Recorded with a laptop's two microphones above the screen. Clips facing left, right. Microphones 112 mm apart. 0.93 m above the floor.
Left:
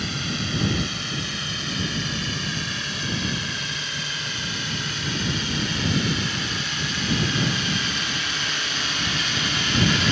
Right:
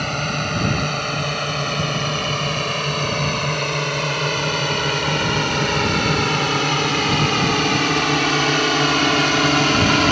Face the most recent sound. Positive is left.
turn(degrees=-65)  # may be behind; listen again after turning